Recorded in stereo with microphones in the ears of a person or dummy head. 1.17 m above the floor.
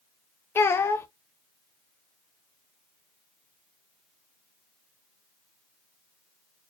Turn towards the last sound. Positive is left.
turn(degrees=15)  # may be behind; listen again after turning